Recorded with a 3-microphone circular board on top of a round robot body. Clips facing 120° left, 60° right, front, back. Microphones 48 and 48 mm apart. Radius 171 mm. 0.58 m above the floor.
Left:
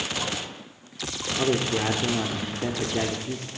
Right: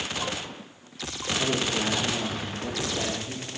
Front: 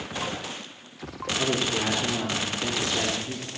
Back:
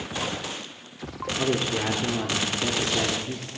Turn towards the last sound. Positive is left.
turn(degrees=95)